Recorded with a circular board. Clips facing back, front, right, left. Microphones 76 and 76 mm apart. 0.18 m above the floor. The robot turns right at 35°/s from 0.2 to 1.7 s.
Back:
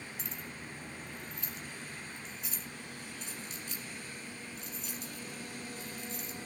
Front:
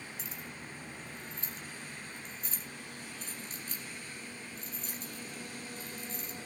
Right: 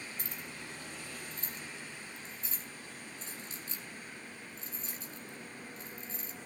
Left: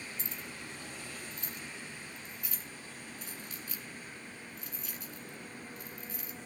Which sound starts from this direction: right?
Keys jangling, at 0.2 s.